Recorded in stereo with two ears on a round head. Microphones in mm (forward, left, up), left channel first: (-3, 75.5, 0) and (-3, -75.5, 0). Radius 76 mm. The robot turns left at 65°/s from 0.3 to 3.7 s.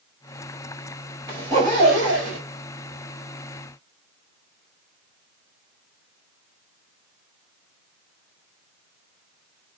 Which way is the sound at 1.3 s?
25° right.